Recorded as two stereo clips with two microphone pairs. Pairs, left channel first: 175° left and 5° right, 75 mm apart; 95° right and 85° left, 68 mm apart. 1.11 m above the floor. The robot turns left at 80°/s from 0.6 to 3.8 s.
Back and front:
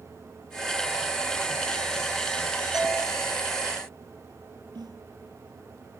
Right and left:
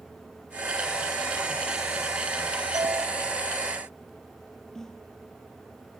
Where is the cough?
I don't hear a cough.